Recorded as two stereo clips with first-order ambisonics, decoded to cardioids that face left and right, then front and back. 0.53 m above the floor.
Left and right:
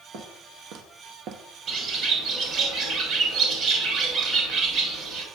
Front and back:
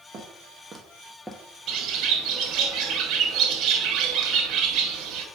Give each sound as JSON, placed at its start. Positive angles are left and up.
{"t": 0.1, "sound": "footsteps", "azimuth_deg": -120, "distance_m": 1.8}
{"t": 1.7, "sound": "a bird", "azimuth_deg": -145, "distance_m": 1.0}